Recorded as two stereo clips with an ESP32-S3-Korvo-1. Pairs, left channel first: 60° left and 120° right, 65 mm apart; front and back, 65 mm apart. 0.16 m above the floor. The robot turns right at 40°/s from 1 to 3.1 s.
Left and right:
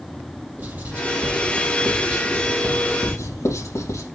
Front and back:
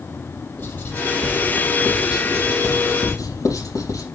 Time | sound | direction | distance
0.6 | writing | 55° right | 3.5 m